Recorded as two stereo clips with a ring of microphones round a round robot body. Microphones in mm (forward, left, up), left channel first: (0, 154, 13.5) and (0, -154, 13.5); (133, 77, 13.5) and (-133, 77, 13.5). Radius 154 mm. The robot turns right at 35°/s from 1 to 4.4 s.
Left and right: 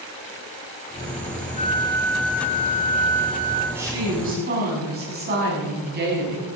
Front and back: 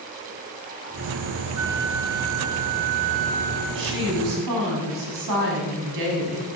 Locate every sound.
1.6 s a flute: 155° left, 2.5 m; by 3.6 s 130° right, 2.5 m
3.8 s a woman speaking: 175° right, 6.5 m; by 6.5 s 150° right, 6.5 m